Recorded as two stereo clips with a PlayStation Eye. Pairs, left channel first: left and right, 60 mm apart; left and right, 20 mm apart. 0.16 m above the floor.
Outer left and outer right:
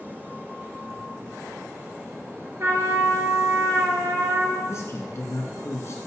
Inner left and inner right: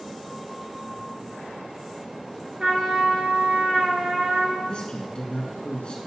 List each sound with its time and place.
2.6 s a trumpet: 50° right (ahead or behind), 2 m
4.7 s a man speaking: 50° left (ahead or behind), 1.8 m